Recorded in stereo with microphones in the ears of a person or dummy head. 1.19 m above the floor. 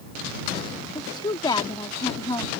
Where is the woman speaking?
30° left (ahead or behind).